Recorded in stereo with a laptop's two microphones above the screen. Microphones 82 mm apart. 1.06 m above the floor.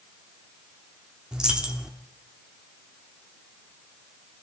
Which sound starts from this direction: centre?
A dropped coin, at 1.3 s.